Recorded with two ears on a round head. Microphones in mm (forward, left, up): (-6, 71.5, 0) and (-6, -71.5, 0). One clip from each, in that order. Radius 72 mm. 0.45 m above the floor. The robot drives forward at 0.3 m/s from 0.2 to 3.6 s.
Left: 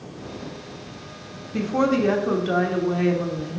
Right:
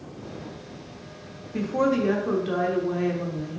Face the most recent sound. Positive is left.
turn(degrees=15)  # may be behind; listen again after turning